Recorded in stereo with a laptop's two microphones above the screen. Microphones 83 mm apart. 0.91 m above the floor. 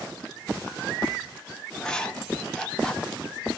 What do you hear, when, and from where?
1.7 s writing: 10° left (ahead or behind), 0.8 m